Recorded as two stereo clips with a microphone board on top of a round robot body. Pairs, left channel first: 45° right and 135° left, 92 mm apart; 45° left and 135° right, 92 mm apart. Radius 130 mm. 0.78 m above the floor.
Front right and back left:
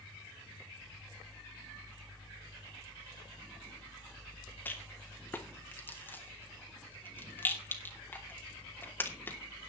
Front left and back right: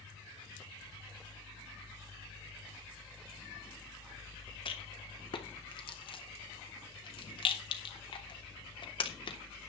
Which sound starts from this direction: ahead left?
A rattle, at 4.7 s.